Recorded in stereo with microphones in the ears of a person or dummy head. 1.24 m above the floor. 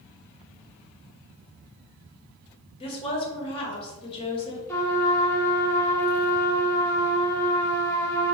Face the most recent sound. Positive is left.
turn(degrees=15)  # may be behind; listen again after turning